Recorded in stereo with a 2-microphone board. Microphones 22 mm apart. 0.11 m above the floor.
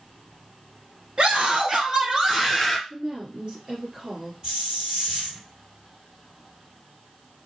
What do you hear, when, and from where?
1.2 s a scream: 50° right (ahead or behind), 1.9 m; by 2.8 s centre (ahead or behind), 1.5 m
2.9 s a woman speaking: 30° right (ahead or behind), 2 m
4.4 s a hiss: 30° right (ahead or behind), 2 m